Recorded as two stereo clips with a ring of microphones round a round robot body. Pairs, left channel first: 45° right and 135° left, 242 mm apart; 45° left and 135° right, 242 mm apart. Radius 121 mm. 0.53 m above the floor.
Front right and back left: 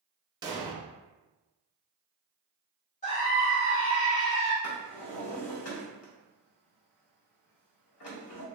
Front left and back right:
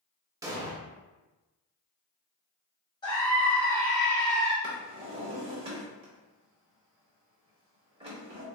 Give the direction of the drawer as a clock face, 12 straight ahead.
2 o'clock.